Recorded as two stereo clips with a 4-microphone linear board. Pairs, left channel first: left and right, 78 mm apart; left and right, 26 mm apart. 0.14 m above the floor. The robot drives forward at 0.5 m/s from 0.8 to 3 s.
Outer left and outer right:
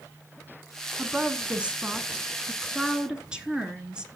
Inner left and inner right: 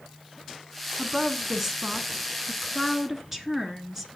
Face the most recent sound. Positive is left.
turn(degrees=-10)  # may be behind; listen again after turning